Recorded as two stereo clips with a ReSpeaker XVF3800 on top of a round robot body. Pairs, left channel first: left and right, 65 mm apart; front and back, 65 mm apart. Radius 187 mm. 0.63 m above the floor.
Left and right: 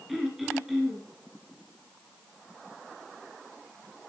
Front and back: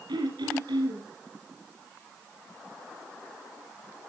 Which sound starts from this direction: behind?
Throat clearing, at 0.1 s.